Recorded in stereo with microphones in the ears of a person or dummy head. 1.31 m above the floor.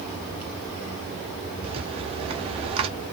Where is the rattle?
30° right (ahead or behind), 0.6 m.